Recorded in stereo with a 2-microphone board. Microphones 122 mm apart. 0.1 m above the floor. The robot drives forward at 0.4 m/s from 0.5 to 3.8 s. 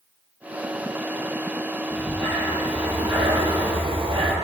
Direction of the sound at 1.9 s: 35° right (ahead or behind).